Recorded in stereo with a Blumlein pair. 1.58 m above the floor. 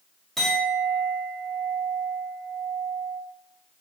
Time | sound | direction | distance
0.4 | a clink | straight ahead | 1.7 m